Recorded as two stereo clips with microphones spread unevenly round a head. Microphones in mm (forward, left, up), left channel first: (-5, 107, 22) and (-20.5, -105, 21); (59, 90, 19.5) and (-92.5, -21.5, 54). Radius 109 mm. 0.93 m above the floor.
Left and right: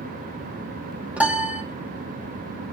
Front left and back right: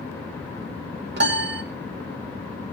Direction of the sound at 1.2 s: Straight behind.